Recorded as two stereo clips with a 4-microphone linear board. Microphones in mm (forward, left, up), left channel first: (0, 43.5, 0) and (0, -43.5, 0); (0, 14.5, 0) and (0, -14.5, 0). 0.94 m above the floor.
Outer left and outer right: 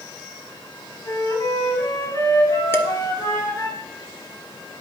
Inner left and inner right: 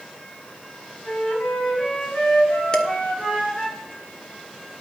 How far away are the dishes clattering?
About 1.2 m.